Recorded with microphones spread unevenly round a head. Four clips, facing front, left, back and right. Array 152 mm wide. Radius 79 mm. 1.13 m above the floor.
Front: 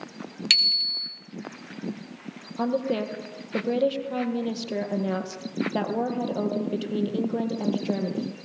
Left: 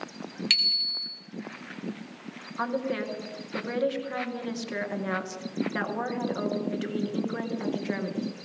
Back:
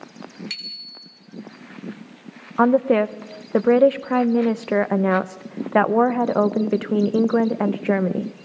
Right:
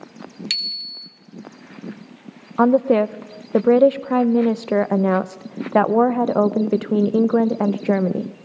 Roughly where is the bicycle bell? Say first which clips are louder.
Left 1 dB, front 7 dB; ahead.